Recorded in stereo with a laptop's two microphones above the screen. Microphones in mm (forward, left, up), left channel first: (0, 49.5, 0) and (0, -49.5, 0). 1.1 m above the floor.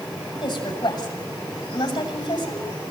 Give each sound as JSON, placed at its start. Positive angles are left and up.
{"t": 0.3, "sound": "a woman speaking", "side_deg": 50, "distance_m": 7.5}